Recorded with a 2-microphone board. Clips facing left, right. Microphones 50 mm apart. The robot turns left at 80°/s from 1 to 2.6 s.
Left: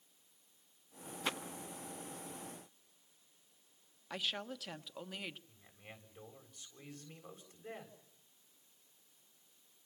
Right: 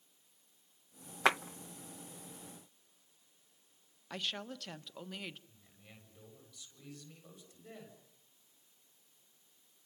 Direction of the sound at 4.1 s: 5° left (ahead or behind).